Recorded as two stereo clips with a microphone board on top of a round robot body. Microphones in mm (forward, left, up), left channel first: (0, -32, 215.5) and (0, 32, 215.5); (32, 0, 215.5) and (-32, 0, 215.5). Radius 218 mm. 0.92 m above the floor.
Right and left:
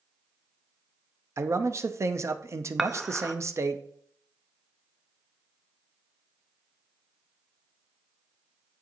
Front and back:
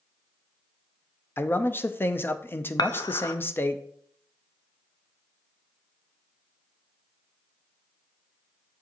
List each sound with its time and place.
1.4 s a man speaking: 50° left, 0.8 m
2.8 s dishes clattering: 5° left, 0.6 m